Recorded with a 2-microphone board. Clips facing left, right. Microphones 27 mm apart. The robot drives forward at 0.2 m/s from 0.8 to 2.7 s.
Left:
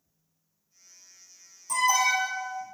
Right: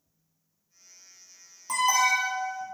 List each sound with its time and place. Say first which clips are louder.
1.7 s an alarm: even; 45° right (ahead or behind), 0.9 m; by 2.6 s 40° right (ahead or behind), 1.0 m